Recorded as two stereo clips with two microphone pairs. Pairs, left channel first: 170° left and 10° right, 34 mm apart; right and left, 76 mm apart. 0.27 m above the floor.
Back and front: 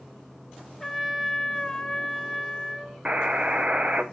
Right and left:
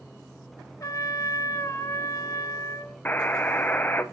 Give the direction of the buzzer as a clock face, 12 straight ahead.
1 o'clock.